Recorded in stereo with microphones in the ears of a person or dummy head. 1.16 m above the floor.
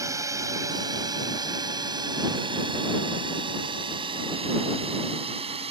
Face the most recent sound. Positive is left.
turn(degrees=-35)  # may be behind; listen again after turning